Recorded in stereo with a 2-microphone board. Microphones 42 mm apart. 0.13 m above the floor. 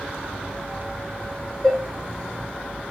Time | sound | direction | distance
1.6 | dishes clattering | 15° left (ahead or behind) | 0.9 m